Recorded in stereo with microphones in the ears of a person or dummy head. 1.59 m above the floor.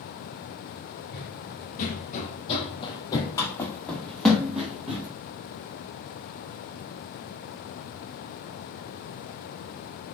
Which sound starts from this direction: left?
Running footsteps, at 1.1 s.